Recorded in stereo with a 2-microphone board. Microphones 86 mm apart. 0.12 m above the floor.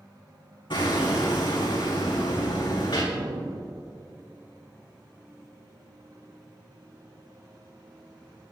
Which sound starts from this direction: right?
An explosion, at 3.1 s.